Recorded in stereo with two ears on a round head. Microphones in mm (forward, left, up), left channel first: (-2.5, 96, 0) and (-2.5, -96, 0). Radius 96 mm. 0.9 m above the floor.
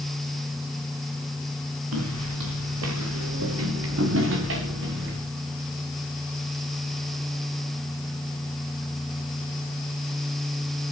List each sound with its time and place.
1.9 s footsteps: 80° right, 6 m; by 5.2 s 60° right (ahead or behind), 5 m